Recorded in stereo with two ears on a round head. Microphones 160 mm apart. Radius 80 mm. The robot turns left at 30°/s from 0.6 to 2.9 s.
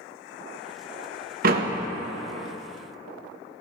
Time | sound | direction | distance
1.4 | a door slam | 50° right (ahead or behind) | 0.9 m